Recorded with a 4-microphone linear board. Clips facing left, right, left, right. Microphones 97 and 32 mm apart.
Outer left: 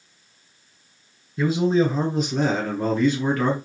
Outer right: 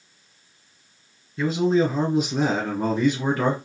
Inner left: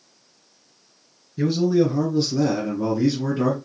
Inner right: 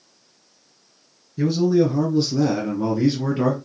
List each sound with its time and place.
1.4 s a man speaking: 10° left (ahead or behind), 1.6 m; by 3.6 s 25° right (ahead or behind), 1.4 m